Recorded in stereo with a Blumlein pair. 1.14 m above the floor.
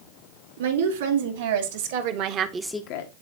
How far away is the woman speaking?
About 2.5 m.